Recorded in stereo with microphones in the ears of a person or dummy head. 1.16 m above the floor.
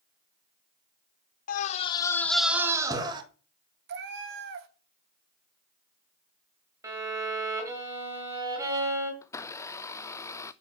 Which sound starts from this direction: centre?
A blender, at 9.2 s.